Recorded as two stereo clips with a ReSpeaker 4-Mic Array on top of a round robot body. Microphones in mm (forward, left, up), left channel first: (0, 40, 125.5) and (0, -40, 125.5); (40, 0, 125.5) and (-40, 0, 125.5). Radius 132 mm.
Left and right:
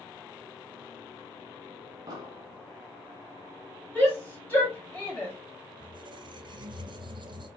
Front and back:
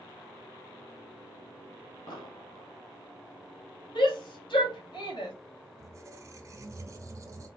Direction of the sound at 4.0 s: 20° left.